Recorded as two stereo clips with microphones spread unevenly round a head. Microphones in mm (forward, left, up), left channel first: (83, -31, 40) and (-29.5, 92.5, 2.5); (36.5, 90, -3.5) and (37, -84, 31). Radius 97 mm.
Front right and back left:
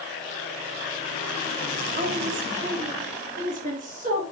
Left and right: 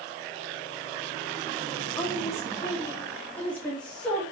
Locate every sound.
2.0 s a woman speaking: 150° left, 1.5 m; by 4.2 s 170° left, 2.5 m